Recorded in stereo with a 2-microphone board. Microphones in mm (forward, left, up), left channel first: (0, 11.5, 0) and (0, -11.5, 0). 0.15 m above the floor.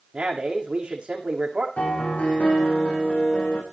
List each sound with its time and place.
0.1 s a man speaking: 55° right (ahead or behind), 8 m
1.8 s a piano: 80° left, 8 m